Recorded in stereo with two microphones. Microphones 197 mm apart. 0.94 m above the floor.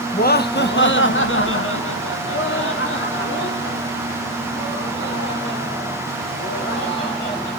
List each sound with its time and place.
0.1 s laughter: 45° left (ahead or behind), 0.9 m; by 7.5 s 55° left (ahead or behind), 4 m